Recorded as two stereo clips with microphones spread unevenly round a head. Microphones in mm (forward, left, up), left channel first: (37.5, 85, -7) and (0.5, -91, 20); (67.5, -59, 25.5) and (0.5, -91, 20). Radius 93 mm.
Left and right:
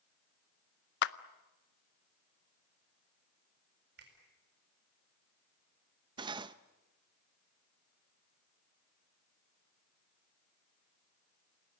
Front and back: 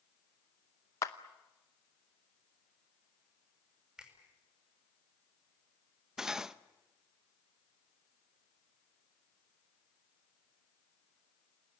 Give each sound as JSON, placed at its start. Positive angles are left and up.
{"t": 1.0, "sound": "a clap", "azimuth_deg": 70, "distance_m": 0.6}
{"t": 4.0, "sound": "a finger snap", "azimuth_deg": -70, "distance_m": 7.0}
{"t": 6.2, "sound": "cutlery clinking", "azimuth_deg": -70, "distance_m": 0.6}